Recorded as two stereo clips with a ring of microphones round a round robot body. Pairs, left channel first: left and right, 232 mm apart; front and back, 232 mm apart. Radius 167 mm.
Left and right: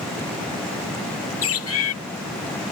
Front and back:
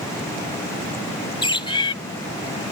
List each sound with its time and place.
1.4 s a bird: 70° left